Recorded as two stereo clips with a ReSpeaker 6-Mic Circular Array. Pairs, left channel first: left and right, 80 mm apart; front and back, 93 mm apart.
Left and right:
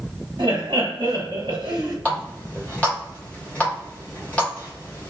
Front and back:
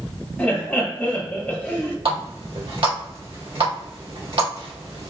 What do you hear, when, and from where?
0.4 s laughter: 75° right, 1.1 m
2.0 s a running tap: 160° left, 1.4 m